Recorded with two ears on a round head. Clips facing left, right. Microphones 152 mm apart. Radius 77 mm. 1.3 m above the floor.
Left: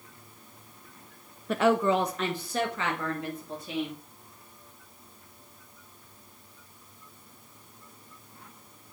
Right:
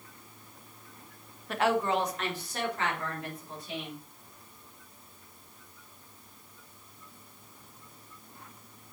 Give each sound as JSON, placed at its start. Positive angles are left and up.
{"t": 1.5, "sound": "a woman speaking", "side_deg": 80, "distance_m": 0.6}